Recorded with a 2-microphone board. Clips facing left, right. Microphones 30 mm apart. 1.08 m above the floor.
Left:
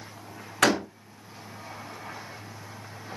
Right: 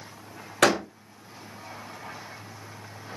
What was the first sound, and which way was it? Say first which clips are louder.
A door slam: right 1 dB; 70° right (ahead or behind).